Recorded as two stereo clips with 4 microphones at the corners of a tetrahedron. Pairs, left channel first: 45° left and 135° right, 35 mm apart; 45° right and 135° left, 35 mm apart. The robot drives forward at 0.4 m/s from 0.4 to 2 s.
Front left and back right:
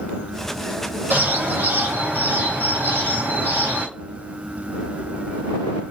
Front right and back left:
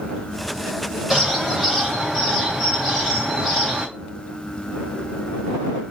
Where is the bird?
150° right, 5 m; by 3.9 s 155° right, 5.5 m.